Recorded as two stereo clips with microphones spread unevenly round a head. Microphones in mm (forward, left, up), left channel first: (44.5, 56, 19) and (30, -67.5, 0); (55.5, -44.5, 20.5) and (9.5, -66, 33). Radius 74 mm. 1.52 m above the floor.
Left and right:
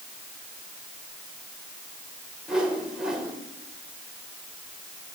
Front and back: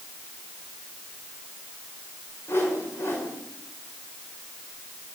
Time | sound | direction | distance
2.5 | a whoosh | 10° right | 7 m